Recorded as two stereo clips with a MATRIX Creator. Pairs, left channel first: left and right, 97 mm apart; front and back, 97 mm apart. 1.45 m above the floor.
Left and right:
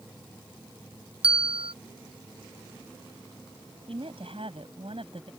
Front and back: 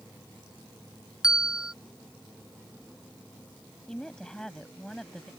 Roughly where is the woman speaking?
Right.